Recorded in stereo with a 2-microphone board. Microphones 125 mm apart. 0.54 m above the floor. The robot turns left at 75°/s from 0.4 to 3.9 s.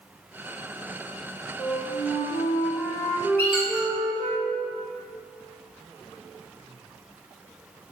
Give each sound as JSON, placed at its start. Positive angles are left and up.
{"t": 1.6, "sound": "a flute", "azimuth_deg": 125, "distance_m": 0.8}
{"t": 3.4, "sound": "a squeak", "side_deg": 15, "distance_m": 2.0}